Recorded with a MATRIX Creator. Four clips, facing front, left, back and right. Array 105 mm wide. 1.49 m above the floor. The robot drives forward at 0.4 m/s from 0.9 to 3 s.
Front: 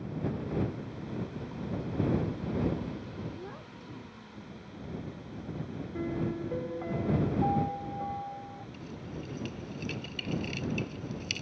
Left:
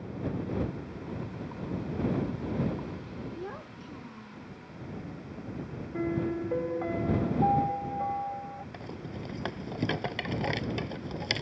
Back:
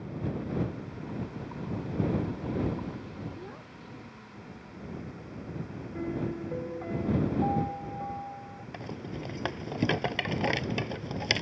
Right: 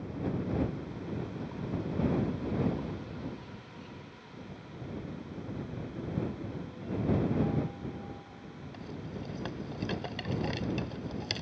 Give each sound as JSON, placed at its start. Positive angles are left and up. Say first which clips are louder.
{"t": 3.4, "sound": "a child speaking", "louder": "left 7 dB, even", "azimuth_deg": 85}
{"t": 5.9, "sound": "a piano", "louder": "left 8 dB, even", "azimuth_deg": 85}
{"t": 8.7, "sound": "a rattle", "louder": "left 1 dB, back 6 dB", "azimuth_deg": 160}